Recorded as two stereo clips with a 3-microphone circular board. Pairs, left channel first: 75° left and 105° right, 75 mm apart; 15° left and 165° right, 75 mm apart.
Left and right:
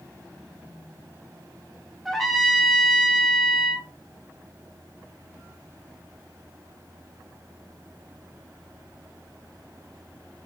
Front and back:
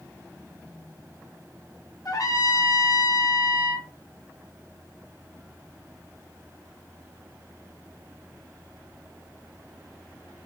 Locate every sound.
2.0 s a trumpet: 15° right, 0.5 m